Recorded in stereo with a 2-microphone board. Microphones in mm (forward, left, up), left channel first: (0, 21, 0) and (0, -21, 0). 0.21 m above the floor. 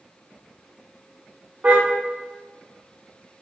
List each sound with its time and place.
1.6 s a car horn: 45° right (ahead or behind), 8 m